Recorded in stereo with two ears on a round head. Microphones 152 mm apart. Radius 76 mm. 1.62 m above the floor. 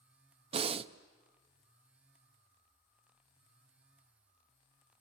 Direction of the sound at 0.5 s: 35° right (ahead or behind).